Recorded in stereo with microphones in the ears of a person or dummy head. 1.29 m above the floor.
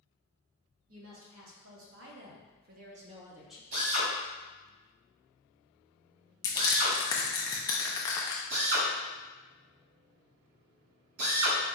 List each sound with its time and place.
0.9 s a woman speaking: 75° right (ahead or behind), 1.8 m; by 3.6 s 5° left (ahead or behind), 0.6 m
3.7 s a drill: 55° right (ahead or behind), 1.7 m
6.4 s crushing: 20° left (ahead or behind), 0.5 m
8.5 s a drill: 65° right (ahead or behind), 1.8 m